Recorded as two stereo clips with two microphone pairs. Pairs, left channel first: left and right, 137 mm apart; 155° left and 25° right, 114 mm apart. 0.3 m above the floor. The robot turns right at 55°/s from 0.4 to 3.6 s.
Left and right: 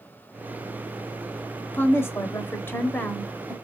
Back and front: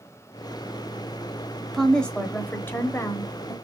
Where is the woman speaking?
60° left, 1.0 m; by 3.5 s 160° left, 1.0 m.